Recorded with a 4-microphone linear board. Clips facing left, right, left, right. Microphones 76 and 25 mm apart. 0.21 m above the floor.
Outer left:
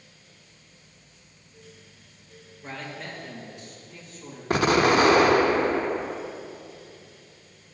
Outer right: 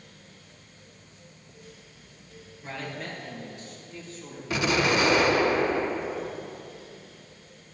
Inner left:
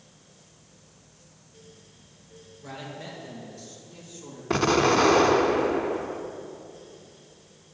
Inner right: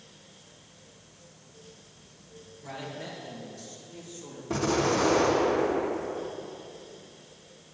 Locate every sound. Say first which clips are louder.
2.6 s a man speaking: outer right 1 dB, even; 5° left (ahead or behind), 3 m
4.5 s an explosion: outer left 5 dB, inner left 5 dB; 55° left (ahead or behind), 0.7 m